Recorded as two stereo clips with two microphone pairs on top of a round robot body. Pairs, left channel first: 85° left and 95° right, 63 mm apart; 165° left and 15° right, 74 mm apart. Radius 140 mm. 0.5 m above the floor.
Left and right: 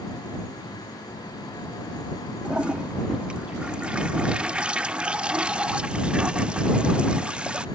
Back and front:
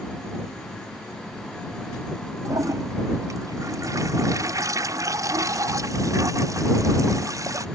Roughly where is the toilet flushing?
Ahead right.